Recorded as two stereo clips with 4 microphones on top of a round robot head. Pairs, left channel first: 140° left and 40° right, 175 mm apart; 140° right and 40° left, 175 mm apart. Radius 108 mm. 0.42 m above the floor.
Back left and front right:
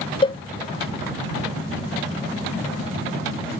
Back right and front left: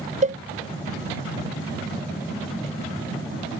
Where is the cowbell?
85° left.